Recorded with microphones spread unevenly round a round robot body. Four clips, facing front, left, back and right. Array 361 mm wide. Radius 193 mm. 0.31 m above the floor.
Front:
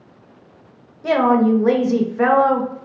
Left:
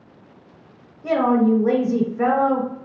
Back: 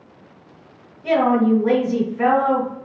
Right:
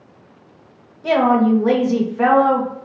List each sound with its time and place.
1.0 s a woman speaking: 30° right, 1.0 m